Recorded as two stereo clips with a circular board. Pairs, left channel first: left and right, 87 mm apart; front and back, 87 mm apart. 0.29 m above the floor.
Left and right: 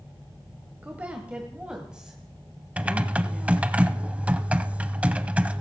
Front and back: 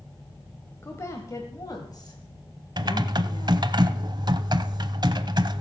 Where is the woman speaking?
30° right, 1.2 m; by 3.7 s straight ahead, 2.5 m.